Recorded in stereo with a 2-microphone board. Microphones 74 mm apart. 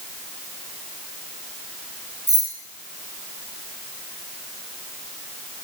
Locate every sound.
2.3 s keys jangling: 55° right (ahead or behind), 5 m